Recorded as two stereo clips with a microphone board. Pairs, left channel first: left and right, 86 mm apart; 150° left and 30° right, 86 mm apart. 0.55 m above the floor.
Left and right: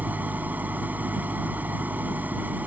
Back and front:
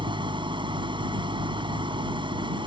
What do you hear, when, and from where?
0.0 s an engine running: 20° right